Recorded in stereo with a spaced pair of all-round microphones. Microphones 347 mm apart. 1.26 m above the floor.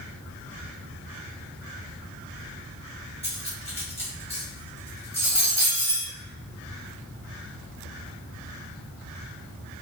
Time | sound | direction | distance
3.2 | cutlery clinking | 15° left (ahead or behind) | 1.1 m